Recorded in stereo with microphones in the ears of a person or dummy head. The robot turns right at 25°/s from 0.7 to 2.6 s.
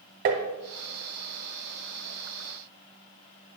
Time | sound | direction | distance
0.2 | tapping | 40° right (ahead or behind) | 1.1 m